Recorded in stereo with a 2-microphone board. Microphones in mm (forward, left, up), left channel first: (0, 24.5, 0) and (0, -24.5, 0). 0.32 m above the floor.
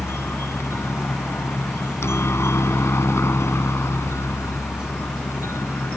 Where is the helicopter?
60° left (ahead or behind); by 6.0 s 65° left (ahead or behind).